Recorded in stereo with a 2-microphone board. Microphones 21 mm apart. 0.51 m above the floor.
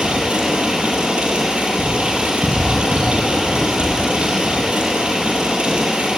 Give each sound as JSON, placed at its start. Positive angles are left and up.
{"t": 0.0, "sound": "running water", "side_deg": -75, "distance_m": 7.0}